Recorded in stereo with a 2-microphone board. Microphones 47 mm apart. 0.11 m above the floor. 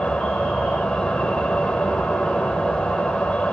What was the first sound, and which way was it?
An insect, 20° left (ahead or behind).